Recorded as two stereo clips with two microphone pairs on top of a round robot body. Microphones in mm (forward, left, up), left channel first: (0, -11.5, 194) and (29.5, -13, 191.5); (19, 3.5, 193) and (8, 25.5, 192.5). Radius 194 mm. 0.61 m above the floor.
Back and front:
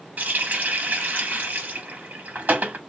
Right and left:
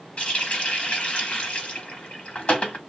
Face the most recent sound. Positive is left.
turn(degrees=-20)